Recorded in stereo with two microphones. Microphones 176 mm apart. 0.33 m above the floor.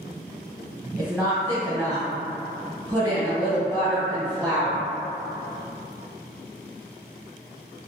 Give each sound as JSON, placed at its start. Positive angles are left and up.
{"t": 1.0, "sound": "a woman speaking", "side_deg": -5, "distance_m": 1.4}